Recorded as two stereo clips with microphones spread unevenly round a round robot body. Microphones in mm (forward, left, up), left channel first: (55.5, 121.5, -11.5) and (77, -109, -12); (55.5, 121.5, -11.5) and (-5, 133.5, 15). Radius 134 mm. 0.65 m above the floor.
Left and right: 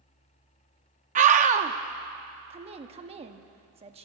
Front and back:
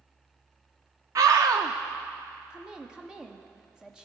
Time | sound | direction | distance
1.1 | a scream | 135° right | 0.7 m
2.5 | a woman speaking | 75° right | 1.0 m